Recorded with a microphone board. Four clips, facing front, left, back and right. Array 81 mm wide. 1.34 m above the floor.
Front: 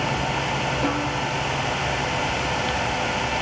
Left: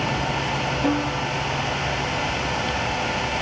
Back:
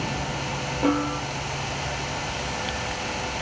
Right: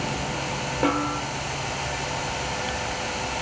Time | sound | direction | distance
0.8 | a snare drum | 100° right | 2.5 m